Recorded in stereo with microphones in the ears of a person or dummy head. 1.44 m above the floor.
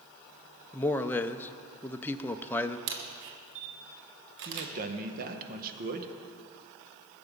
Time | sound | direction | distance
0.7 | a man speaking | 10° left (ahead or behind) | 0.6 m
2.9 | a camera shutter | 60° right (ahead or behind) | 1.1 m
4.5 | a man speaking | 45° right (ahead or behind) | 1.4 m